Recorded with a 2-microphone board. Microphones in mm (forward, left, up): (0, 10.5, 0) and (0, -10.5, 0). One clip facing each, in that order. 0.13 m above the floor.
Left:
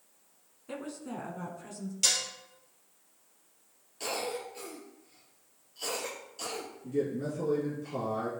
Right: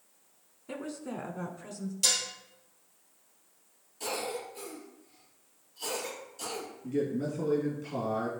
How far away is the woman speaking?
About 1.1 m.